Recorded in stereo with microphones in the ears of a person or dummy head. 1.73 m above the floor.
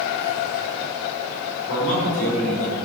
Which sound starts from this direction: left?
A man speaking, at 1.7 s.